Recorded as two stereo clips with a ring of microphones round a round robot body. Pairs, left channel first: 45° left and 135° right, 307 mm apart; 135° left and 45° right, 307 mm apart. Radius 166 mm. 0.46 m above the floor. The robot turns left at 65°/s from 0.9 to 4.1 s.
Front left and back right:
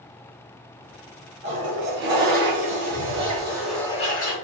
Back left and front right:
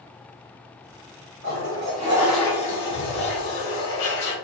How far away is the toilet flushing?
About 4 m.